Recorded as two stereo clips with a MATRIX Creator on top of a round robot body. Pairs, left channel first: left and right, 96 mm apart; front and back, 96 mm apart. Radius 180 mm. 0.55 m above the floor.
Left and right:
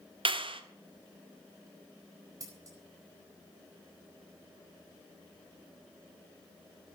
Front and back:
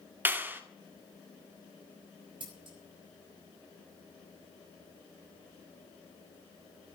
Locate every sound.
0.2 s a clap: 110° right, 1.7 m
2.4 s scissors: 145° right, 6.5 m